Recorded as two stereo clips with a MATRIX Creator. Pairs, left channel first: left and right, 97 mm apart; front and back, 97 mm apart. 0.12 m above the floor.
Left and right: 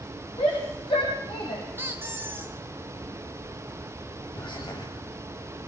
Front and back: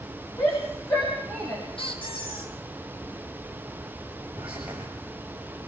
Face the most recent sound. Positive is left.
turn(degrees=105)